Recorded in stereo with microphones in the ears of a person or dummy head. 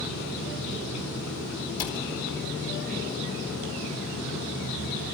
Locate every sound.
1.8 s a cupboard door: 55° left (ahead or behind), 2.5 m